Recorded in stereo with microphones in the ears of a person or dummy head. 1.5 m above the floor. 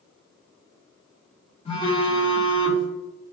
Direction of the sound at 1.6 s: 30° left (ahead or behind).